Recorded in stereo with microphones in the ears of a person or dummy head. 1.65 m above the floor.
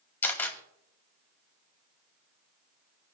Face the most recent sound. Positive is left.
turn(degrees=15)  # may be behind; listen again after turning